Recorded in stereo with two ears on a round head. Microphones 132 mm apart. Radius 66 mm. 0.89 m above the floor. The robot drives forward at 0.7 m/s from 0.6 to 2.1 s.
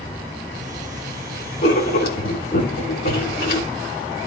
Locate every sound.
1.6 s writing: 75° left (ahead or behind), 3 m; by 3.7 s 70° left (ahead or behind), 3 m